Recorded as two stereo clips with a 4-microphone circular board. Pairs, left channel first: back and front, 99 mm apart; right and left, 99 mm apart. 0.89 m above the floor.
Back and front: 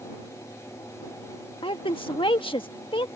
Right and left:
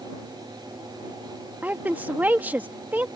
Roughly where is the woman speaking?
Behind.